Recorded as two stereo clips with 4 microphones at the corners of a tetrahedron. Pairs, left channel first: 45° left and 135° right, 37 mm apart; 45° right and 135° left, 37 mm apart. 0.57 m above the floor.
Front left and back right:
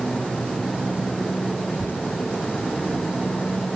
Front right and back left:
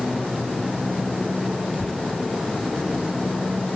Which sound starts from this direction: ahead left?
A child speaking, at 1.7 s.